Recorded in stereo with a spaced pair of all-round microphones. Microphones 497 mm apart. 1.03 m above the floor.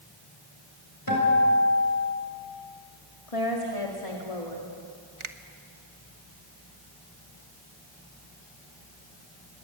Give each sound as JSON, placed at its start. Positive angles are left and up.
{"t": 1.1, "sound": "a guitar", "side_deg": 40, "distance_m": 6.5}
{"t": 3.3, "sound": "a woman speaking", "side_deg": 80, "distance_m": 2.5}
{"t": 5.2, "sound": "a finger snap", "side_deg": -70, "distance_m": 1.2}